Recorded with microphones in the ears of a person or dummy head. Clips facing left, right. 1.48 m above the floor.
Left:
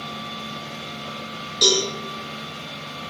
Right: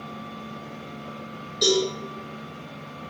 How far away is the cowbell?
About 1.3 m.